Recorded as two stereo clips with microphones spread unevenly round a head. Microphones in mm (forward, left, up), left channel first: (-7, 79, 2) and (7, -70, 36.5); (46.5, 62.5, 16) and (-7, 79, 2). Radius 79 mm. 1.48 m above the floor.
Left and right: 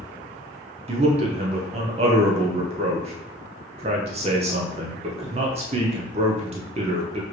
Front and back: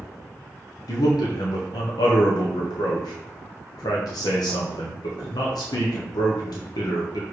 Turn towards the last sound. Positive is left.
turn(degrees=-30)